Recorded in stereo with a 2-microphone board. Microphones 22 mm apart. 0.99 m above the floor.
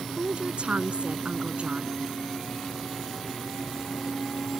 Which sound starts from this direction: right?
A woman speaking, at 0.2 s.